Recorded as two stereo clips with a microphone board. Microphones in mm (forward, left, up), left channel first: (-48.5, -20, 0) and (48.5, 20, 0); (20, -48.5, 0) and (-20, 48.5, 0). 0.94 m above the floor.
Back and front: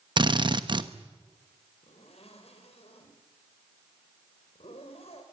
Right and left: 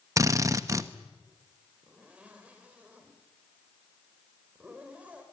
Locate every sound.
0.2 s a drill: 60° left, 1.2 m
1.8 s a zipper: 170° right, 5 m